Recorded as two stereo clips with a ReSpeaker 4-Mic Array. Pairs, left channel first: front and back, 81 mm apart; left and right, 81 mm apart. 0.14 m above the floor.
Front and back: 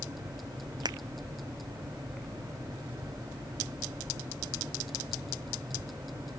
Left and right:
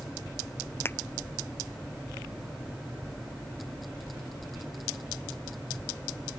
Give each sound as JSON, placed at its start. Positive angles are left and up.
{"t": 0.8, "sound": "a finger snap", "azimuth_deg": 150}